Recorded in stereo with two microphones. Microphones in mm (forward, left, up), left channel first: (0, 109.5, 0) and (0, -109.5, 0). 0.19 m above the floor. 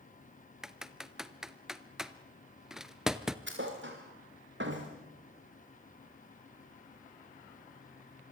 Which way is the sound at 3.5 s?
60° right (ahead or behind).